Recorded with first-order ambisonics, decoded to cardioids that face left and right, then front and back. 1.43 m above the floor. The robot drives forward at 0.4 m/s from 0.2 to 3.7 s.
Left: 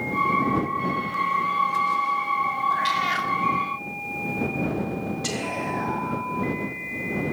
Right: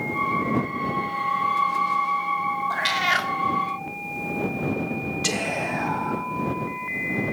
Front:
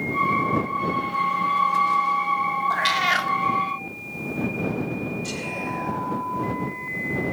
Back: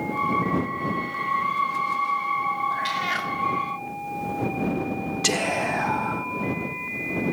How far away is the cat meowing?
About 0.7 m.